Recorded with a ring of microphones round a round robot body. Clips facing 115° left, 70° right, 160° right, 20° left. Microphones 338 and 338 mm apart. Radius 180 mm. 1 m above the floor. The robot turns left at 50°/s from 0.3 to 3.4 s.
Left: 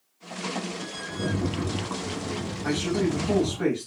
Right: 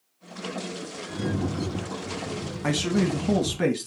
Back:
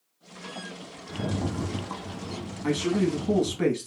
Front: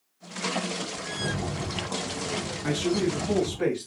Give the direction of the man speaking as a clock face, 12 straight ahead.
2 o'clock.